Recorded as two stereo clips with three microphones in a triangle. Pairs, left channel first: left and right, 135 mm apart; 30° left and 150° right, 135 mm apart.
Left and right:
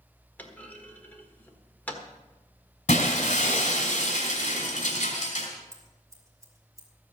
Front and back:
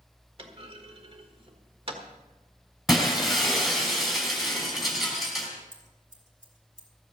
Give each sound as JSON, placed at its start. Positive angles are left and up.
{"t": 0.4, "sound": "a clunk", "azimuth_deg": 165, "distance_m": 1.5}
{"t": 2.9, "sound": "breaking glass", "azimuth_deg": 120, "distance_m": 3.0}
{"t": 5.7, "sound": "scissors", "azimuth_deg": -155, "distance_m": 2.5}